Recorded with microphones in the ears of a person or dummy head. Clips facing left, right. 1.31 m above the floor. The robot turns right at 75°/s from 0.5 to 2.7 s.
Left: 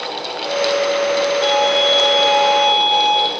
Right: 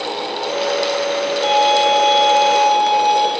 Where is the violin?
125° left, 4 m; by 3.3 s 140° right, 4 m.